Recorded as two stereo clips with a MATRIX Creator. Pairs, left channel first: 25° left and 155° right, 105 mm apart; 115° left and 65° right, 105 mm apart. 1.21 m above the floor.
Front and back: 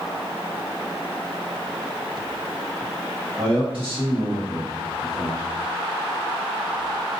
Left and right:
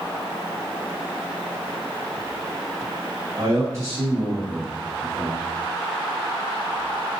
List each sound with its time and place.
3.4 s a man speaking: 125° right, 1.7 m